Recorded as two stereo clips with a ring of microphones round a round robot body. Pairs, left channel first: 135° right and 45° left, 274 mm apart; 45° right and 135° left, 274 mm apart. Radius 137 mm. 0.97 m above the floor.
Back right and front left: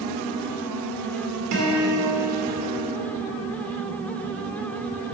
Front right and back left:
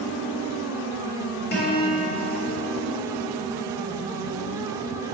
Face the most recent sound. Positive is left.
turn(degrees=10)